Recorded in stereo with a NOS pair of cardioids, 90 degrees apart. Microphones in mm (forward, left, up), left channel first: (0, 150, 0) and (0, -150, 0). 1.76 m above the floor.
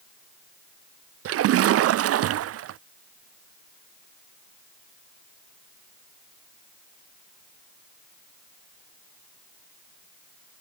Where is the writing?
No writing in this recording.